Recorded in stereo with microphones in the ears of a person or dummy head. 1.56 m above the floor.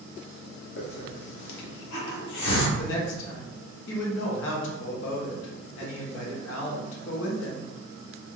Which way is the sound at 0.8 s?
60° left (ahead or behind).